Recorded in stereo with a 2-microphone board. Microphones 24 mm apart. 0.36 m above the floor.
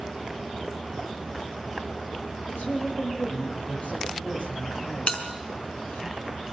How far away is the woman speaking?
About 10 m.